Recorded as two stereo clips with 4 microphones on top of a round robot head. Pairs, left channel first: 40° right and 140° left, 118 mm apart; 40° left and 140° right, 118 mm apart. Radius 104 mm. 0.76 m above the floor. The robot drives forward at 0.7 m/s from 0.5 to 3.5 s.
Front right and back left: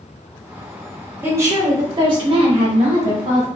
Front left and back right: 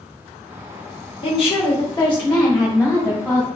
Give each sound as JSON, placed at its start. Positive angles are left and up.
{"t": 1.2, "sound": "a woman speaking", "azimuth_deg": 75, "distance_m": 1.2}